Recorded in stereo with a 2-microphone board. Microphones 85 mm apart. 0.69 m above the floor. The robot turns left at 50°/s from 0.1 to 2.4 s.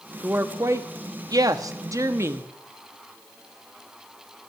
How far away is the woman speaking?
About 0.8 m.